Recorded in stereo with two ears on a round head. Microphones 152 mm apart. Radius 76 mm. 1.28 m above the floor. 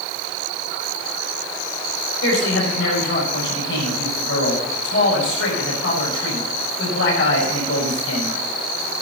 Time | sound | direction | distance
2.2 | a man speaking | 80° left | 7 m